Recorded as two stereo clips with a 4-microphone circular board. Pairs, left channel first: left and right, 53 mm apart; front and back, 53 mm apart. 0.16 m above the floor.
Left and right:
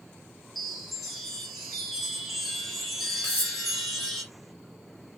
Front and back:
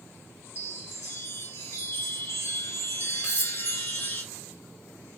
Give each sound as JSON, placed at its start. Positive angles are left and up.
{"t": 0.6, "sound": "a chime", "azimuth_deg": 5, "distance_m": 1.2}
{"t": 3.2, "sound": "cutlery clinking", "azimuth_deg": 120, "distance_m": 1.0}